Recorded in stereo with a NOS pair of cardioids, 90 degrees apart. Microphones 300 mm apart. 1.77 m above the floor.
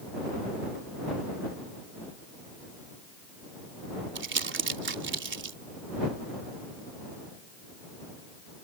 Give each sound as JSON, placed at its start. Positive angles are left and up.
{"t": 4.2, "sound": "crumpling", "azimuth_deg": -40}